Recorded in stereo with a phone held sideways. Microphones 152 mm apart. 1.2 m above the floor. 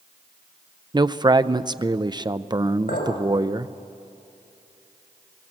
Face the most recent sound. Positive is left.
turn(degrees=85)